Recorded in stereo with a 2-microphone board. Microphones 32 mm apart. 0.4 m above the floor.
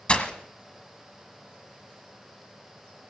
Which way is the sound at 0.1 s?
30° left (ahead or behind).